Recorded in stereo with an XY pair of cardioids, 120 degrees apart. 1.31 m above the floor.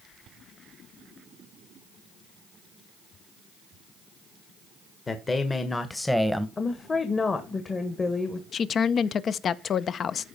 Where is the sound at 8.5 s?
45° left, 0.7 m.